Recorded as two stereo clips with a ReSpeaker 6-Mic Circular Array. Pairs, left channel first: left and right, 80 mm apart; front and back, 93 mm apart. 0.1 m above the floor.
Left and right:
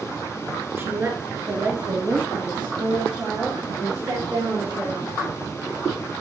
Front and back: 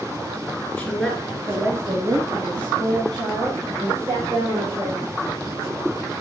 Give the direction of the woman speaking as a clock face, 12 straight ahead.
2 o'clock.